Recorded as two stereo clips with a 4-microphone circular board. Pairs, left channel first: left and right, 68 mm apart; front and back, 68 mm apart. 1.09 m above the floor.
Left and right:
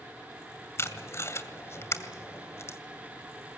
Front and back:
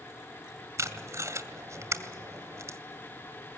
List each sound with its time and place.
0.8 s tape being pulled: 135° left, 2 m